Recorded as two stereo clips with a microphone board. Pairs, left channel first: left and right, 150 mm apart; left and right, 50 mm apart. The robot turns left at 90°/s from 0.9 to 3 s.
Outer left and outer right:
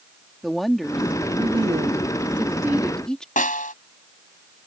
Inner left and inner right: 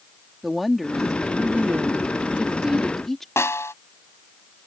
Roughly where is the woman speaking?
Ahead.